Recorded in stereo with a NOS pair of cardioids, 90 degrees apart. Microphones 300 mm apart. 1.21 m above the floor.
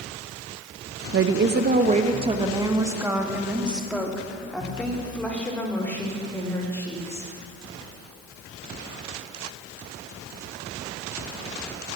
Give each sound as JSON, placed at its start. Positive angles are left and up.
{"t": 1.1, "sound": "a woman speaking", "azimuth_deg": -45, "distance_m": 1.1}